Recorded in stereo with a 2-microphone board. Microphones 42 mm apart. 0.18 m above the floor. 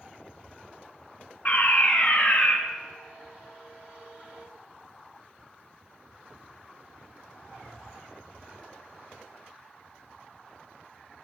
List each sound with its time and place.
1.4 s a fire alarm: 45° left (ahead or behind), 3 m